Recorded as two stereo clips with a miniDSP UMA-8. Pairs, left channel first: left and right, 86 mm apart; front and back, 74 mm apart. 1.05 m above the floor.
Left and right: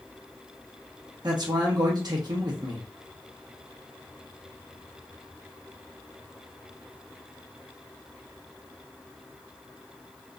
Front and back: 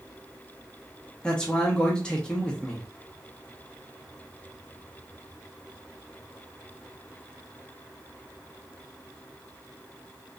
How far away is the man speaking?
About 0.8 m.